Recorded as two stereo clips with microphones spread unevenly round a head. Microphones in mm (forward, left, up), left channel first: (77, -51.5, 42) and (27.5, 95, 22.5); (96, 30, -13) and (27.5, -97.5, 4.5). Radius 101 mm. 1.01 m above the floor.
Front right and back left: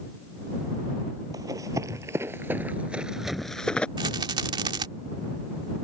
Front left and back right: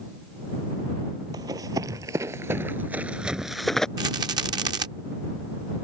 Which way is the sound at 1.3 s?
175° right.